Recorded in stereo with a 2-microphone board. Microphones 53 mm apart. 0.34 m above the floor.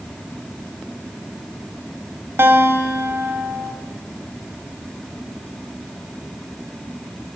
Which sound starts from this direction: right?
A guitar, at 2.4 s.